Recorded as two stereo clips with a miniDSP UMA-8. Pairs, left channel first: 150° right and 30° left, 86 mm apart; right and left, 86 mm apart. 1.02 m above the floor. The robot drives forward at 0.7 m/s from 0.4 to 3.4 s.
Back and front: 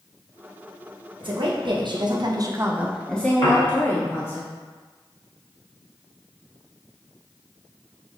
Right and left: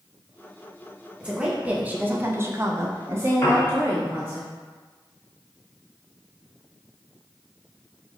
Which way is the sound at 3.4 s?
155° right.